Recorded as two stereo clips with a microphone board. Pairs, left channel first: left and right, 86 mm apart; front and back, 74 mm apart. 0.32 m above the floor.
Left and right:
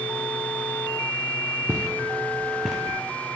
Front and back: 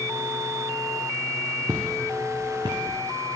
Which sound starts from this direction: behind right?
Footsteps, at 1.7 s.